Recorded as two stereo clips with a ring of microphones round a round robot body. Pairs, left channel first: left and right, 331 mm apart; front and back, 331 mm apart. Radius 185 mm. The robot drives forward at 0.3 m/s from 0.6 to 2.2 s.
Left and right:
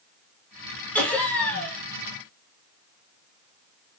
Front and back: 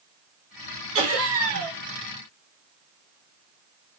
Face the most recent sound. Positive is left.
turn(degrees=175)